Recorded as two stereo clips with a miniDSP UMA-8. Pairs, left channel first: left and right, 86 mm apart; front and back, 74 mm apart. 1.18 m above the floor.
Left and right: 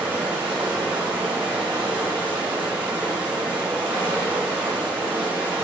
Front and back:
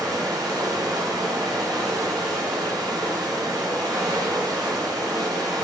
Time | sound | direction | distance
0.0 | running water | 165° right | 5 m